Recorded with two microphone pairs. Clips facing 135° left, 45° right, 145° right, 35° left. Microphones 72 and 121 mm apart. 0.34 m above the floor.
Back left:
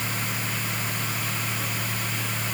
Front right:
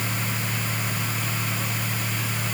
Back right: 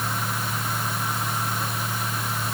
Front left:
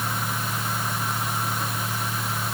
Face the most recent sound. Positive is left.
No sound to turn to.